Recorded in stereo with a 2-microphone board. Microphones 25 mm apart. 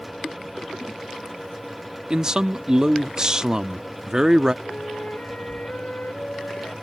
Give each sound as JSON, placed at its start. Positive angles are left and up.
{"t": 2.1, "sound": "a man speaking", "side_deg": -25}
{"t": 4.6, "sound": "a flute", "side_deg": 60}